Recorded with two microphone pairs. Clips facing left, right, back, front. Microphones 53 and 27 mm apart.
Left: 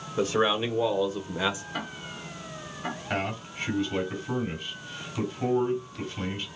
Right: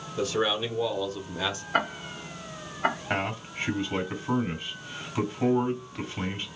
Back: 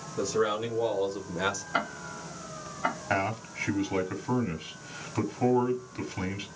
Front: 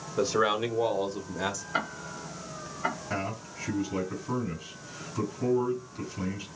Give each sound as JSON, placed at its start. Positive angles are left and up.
{"t": 0.2, "sound": "a man speaking", "azimuth_deg": 40, "distance_m": 1.2}
{"t": 1.7, "sound": "ticking", "azimuth_deg": -95, "distance_m": 0.6}
{"t": 3.1, "sound": "a man speaking", "azimuth_deg": -150, "distance_m": 2.5}